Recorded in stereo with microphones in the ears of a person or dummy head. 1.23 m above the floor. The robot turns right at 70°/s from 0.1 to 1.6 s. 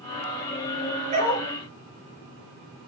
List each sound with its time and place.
1.1 s a dog barking: 40° right (ahead or behind), 9 m; by 1.5 s 60° right (ahead or behind), 9 m